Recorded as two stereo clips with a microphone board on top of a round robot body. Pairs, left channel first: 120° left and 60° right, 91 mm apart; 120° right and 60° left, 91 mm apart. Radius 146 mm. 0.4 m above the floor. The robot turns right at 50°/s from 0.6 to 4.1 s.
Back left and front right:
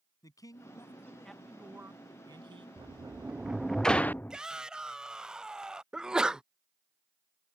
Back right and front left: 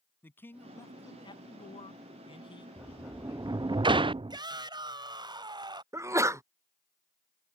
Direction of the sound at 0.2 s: 170° left.